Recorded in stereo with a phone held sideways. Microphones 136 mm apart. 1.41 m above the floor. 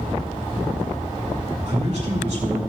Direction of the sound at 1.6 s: 55° right (ahead or behind).